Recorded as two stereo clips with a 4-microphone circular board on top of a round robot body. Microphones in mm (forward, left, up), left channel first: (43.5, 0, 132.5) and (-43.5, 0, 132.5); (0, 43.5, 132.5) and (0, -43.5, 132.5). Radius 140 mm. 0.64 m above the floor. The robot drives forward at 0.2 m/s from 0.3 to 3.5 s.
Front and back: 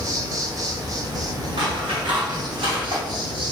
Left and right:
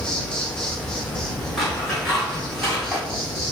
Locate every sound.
0.0 s an insect: 170° left, 1.1 m; by 3.5 s 175° left, 1.6 m
1.6 s scissors: straight behind, 2 m